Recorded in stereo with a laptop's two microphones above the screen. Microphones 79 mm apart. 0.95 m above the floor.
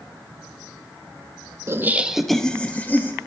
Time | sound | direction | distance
1.7 | laughter | 35° right (ahead or behind) | 0.7 m